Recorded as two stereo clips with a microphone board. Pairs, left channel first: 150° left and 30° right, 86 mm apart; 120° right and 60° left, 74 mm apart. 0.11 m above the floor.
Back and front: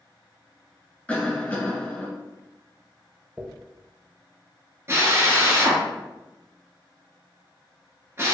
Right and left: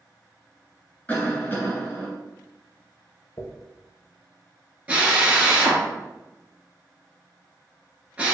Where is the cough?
155° right, 1.8 m.